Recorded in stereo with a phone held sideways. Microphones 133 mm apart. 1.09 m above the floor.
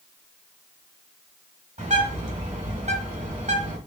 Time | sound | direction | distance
1.8 | a bird | 65° right (ahead or behind) | 1.8 m